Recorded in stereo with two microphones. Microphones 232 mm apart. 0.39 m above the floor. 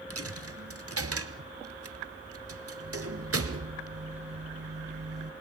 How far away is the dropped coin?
About 1.7 m.